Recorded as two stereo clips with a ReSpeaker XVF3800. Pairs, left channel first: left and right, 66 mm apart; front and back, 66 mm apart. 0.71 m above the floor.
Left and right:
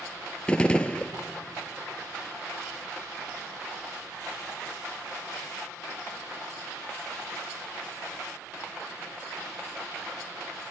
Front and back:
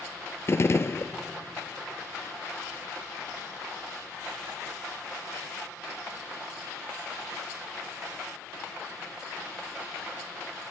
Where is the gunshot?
25° left, 0.6 m.